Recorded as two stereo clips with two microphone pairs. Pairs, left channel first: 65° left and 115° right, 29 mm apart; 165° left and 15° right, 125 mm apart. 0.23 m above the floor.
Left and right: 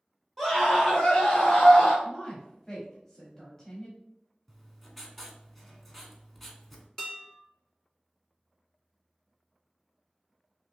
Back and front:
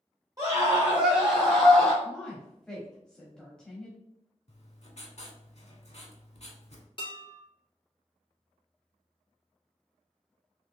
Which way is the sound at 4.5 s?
145° left.